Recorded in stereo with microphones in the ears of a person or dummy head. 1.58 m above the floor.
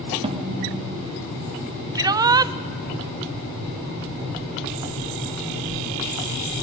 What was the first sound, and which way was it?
A snare drum, 35° right (ahead or behind).